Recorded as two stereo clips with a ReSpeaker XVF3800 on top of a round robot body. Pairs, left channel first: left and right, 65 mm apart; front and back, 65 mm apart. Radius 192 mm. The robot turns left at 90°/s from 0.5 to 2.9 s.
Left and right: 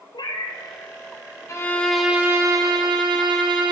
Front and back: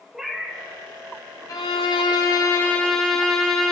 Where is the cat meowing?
95° left, 0.7 m; by 0.6 s 85° left, 0.7 m.